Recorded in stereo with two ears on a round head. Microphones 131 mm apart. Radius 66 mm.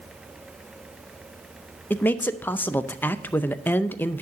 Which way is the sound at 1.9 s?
15° left (ahead or behind).